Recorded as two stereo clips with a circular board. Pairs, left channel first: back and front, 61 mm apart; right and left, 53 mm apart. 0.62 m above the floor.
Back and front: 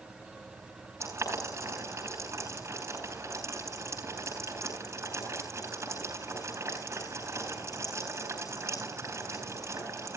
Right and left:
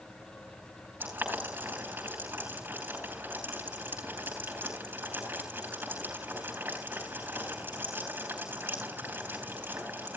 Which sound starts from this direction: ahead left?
Boiling, at 1.0 s.